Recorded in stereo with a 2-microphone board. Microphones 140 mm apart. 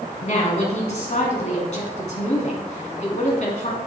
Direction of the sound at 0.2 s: 55° left (ahead or behind).